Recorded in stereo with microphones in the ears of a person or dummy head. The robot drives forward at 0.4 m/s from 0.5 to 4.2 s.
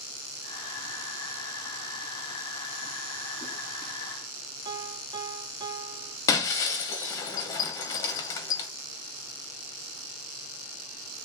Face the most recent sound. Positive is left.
turn(degrees=15)  # may be behind; listen again after turning